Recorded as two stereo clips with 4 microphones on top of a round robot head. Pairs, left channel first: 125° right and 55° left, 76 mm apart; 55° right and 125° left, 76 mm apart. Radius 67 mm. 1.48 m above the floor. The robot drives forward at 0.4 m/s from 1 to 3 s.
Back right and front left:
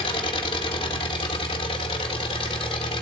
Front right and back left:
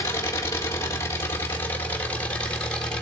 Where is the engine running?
110° right, 1.7 m; by 3.0 s 130° right, 2 m.